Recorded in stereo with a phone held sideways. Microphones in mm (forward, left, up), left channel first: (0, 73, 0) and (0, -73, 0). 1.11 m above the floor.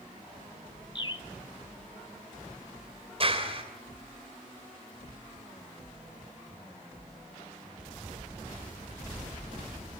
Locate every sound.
0.9 s a bird: 35° left (ahead or behind), 1.3 m
3.2 s a clap: 40° right (ahead or behind), 3 m